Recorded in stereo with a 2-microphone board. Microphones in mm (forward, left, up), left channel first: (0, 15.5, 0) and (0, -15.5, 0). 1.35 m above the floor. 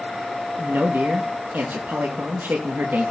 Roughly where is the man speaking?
Right.